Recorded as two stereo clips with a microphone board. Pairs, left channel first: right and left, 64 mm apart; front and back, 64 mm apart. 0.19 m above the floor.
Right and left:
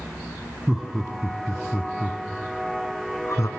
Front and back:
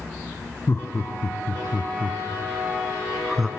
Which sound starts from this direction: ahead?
Laughter, at 0.7 s.